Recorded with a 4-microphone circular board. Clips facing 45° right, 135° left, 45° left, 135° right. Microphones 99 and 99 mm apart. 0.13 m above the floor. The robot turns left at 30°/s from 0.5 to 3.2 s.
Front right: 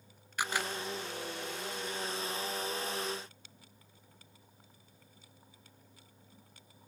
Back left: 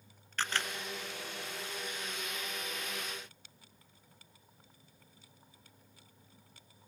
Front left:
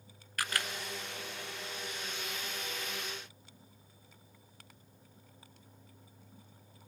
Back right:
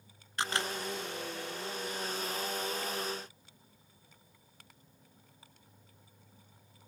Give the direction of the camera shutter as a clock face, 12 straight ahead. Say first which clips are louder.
Front right 2 dB, back right 3 dB; 4 o'clock.